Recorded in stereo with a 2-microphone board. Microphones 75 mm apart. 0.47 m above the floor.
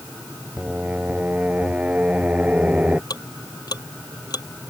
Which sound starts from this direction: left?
Ticking, at 3.1 s.